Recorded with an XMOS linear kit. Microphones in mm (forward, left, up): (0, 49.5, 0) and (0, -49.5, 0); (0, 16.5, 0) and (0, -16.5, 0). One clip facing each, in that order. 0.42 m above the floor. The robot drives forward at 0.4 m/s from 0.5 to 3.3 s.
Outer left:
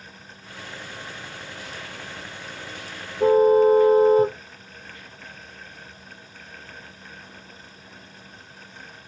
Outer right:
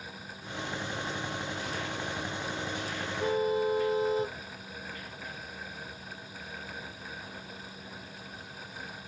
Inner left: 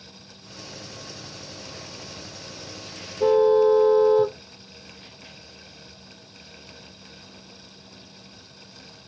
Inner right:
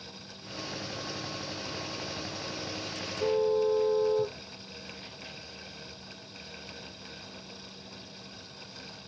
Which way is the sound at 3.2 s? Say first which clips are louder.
Outer left 13 dB, inner left 10 dB; 45° left (ahead or behind).